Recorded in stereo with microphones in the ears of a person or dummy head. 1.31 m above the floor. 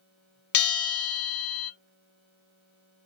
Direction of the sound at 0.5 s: 60° left (ahead or behind).